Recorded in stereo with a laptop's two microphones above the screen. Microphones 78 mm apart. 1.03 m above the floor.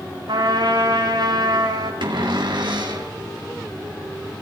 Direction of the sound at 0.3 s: 75° right (ahead or behind).